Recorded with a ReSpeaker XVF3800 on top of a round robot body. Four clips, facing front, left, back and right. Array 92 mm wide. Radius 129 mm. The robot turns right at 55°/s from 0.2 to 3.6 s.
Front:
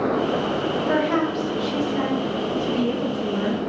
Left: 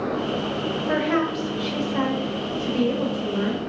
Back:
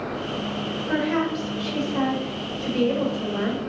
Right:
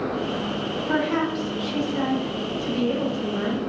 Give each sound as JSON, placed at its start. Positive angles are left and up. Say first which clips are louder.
{"t": 0.9, "sound": "a woman speaking", "louder": "left 1 dB, front 1 dB", "azimuth_deg": 60, "distance_m": 1.5}